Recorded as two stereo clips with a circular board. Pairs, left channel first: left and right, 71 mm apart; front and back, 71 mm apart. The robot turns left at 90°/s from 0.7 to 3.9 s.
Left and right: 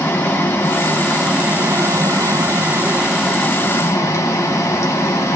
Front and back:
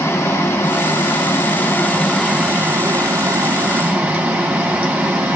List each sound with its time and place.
0.0 s running water: 40° left, 1.0 m; by 5.3 s 115° left, 1.0 m